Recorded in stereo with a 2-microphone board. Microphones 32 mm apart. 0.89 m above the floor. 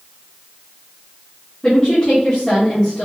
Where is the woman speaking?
25° left (ahead or behind), 1.2 m.